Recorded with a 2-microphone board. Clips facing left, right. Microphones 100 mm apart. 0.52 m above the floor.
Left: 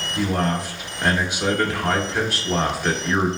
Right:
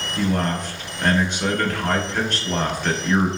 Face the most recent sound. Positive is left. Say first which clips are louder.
# even
turn(degrees=10)  # may be behind; listen again after turning